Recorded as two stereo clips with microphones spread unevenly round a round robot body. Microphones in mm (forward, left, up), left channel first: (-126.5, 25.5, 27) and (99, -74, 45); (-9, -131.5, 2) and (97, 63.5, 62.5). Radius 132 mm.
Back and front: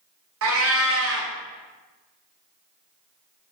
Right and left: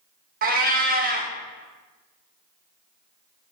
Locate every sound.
0.4 s a cat meowing: 15° left, 0.6 m